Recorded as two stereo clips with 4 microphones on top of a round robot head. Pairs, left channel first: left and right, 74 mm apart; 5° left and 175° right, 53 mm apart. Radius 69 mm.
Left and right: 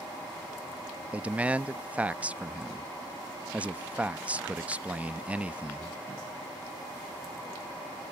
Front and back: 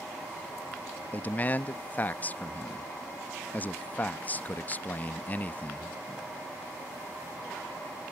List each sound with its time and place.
1.1 s a man speaking: 25° right